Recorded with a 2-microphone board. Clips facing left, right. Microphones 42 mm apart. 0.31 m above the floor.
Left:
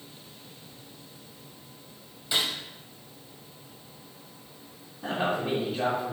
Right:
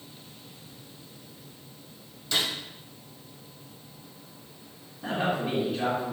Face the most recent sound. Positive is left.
turn(degrees=20)  # may be behind; listen again after turning